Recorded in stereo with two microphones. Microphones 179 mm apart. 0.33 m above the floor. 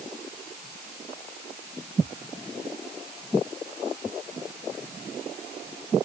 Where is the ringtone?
I don't hear a ringtone.